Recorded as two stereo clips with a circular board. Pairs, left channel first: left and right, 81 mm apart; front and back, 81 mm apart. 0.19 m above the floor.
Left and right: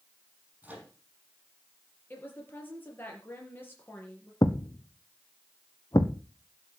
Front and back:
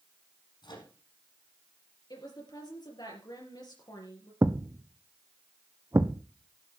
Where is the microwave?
20° right, 5.5 m.